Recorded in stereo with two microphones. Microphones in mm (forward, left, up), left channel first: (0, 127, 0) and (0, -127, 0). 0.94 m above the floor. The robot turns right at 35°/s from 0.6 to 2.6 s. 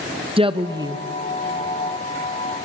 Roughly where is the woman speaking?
Right.